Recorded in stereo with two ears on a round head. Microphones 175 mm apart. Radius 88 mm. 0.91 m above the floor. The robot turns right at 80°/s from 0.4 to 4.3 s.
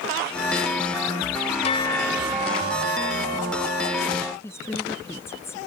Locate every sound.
1.6 s a bell: 145° left; by 4.3 s 5° right
4.4 s a woman speaking: 15° left (ahead or behind)